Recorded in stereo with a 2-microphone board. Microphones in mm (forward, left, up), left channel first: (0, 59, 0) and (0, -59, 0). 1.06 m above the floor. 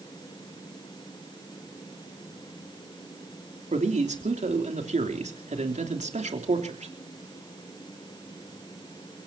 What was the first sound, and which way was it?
A man speaking, 80° right.